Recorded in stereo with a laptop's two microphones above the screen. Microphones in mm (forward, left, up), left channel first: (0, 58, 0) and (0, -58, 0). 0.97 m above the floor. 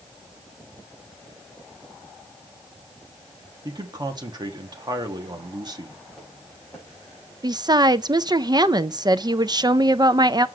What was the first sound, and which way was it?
A man speaking, 35° right (ahead or behind).